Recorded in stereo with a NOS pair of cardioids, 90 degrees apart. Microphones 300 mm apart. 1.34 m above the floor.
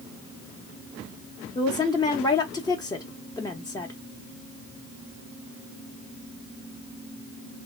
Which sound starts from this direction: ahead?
A woman speaking, at 1.6 s.